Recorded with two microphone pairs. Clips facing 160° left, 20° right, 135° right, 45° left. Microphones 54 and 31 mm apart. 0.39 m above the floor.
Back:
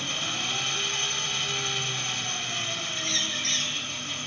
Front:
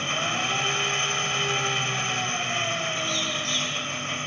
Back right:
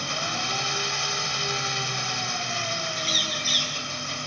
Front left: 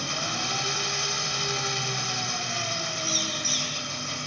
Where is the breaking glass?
No breaking glass in this recording.